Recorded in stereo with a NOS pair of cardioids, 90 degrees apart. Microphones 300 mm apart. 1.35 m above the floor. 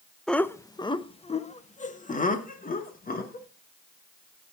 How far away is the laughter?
About 0.9 m.